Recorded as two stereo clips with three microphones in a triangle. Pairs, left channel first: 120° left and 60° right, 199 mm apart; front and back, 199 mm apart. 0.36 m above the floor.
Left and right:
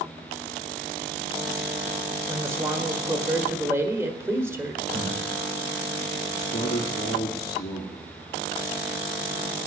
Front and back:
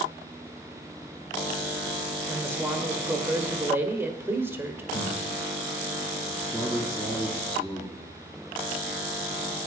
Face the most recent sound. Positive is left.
turn(degrees=85)